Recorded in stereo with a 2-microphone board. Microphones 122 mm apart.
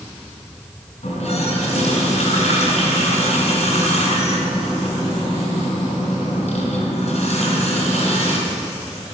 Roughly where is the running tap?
Left.